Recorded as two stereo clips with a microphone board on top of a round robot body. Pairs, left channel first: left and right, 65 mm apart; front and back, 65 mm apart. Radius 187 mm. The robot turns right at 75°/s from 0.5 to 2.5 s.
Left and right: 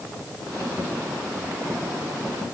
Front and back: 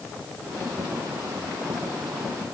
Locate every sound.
Only background noise.